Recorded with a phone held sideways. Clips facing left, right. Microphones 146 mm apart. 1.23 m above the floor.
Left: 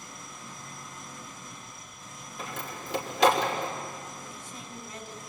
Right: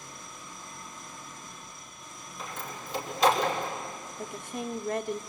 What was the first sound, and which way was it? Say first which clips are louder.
An engine running: left 1 dB; 85° left.